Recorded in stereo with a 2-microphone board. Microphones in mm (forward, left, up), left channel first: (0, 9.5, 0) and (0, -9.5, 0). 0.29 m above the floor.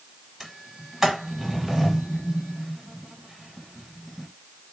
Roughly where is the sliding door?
Centre.